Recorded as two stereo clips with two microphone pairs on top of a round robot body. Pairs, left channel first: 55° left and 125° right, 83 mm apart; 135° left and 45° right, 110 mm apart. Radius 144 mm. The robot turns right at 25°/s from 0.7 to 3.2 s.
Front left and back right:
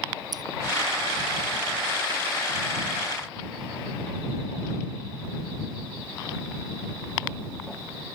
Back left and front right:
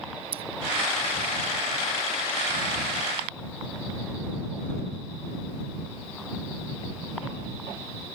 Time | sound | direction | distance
0.3 | scissors | 85° right | ?